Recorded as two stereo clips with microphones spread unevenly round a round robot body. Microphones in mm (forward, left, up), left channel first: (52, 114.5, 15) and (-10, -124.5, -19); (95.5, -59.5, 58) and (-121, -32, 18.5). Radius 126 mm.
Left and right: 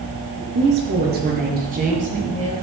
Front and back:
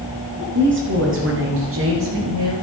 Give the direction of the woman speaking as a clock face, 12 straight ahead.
5 o'clock.